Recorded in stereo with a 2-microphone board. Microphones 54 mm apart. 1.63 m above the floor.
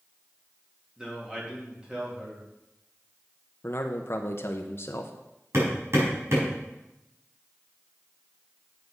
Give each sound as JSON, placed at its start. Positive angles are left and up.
{"t": 1.0, "sound": "a man speaking", "side_deg": -20, "distance_m": 3.0}
{"t": 3.6, "sound": "a man speaking", "side_deg": 50, "distance_m": 0.8}
{"t": 5.5, "sound": "hammering", "side_deg": -60, "distance_m": 4.5}